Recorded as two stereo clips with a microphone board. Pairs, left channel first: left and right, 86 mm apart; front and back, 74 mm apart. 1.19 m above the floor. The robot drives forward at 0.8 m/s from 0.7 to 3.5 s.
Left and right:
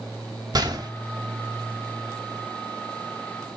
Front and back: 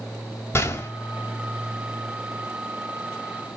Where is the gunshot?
55° right, 2 m; by 0.9 s 60° right, 2 m.